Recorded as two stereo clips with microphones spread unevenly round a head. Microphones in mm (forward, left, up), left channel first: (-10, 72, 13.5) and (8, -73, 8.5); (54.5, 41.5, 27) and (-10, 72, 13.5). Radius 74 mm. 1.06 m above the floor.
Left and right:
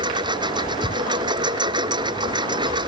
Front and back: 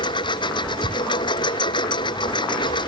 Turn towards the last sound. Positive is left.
turn(degrees=-20)